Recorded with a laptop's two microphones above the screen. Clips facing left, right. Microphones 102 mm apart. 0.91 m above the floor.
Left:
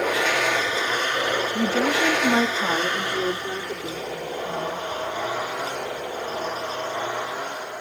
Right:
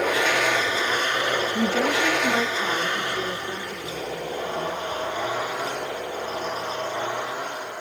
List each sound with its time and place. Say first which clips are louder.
1.6 s a woman speaking: left 1 dB; centre (ahead or behind), 1.0 m; by 4.8 s 60° left (ahead or behind), 4 m